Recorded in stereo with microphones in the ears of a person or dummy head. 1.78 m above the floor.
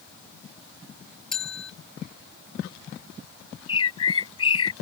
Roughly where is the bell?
Centre.